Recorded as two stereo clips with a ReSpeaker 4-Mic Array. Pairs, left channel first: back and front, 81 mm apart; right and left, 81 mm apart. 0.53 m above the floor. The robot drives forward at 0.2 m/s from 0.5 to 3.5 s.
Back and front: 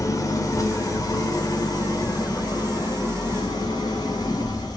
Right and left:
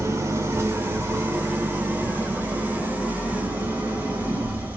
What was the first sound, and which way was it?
An engine running, 140° left.